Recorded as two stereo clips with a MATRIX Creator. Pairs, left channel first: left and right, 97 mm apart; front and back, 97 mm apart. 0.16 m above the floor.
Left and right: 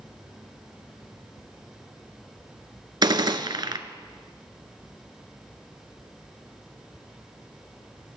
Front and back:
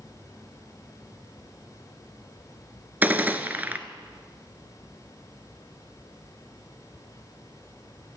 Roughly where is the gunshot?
Behind right.